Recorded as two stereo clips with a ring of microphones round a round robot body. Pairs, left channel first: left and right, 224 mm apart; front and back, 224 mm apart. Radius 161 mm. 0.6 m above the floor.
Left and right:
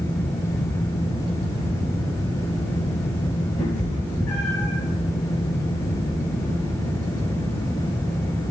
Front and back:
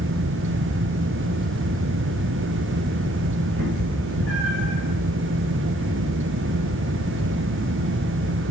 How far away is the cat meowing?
About 5.5 m.